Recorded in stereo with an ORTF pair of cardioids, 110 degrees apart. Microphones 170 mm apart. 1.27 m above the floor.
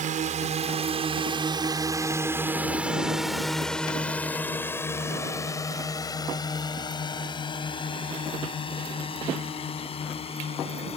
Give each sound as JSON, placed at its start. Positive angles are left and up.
{"t": 0.0, "sound": "a drone", "azimuth_deg": -55}